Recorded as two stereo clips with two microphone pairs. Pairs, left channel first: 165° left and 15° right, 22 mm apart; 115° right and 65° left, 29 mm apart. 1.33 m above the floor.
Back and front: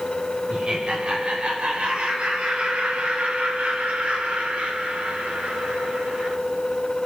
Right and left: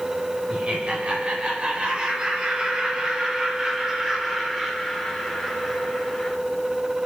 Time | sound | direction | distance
0.5 | laughter | 20° left | 5 m